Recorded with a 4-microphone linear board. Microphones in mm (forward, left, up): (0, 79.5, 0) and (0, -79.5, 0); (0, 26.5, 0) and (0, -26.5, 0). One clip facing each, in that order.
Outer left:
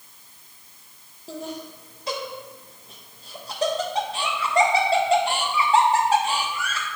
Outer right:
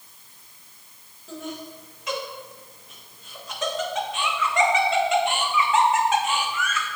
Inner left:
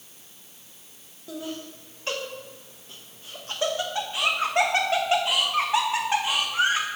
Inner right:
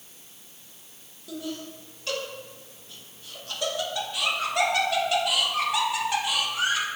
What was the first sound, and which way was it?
Laughter, 35° left (ahead or behind).